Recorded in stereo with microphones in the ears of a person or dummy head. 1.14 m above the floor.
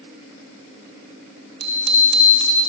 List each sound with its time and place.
1.6 s a bicycle bell: 55° right (ahead or behind), 3.5 m